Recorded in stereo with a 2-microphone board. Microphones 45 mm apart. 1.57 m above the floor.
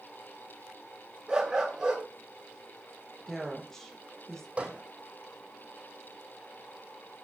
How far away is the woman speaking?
About 1.9 m.